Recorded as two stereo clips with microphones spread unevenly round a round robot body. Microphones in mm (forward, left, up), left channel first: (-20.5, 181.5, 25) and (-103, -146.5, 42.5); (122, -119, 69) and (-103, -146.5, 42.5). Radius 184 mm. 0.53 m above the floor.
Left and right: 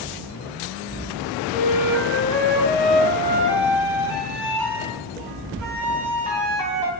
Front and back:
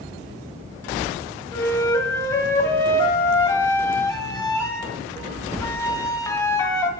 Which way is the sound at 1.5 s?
70° right.